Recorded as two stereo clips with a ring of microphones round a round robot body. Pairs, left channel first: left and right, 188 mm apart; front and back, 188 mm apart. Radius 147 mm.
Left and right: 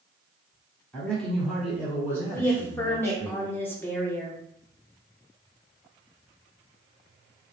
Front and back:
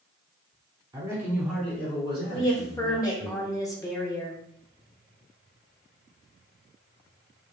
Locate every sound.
0.9 s a man speaking: 155° left, 1.5 m; by 3.3 s 30° right, 2 m
2.3 s a woman speaking: 35° left, 0.9 m